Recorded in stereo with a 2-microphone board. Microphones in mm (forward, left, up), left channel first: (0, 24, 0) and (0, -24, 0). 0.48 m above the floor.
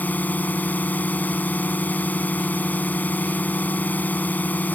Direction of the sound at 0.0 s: 40° left (ahead or behind).